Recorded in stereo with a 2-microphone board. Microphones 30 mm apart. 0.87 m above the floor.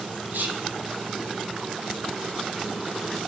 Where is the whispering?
70° right (ahead or behind), 0.8 m.